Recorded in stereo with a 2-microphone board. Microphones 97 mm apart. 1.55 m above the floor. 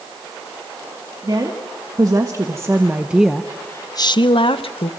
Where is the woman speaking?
45° right (ahead or behind), 2.5 m; by 4.9 s 75° left (ahead or behind), 1.4 m.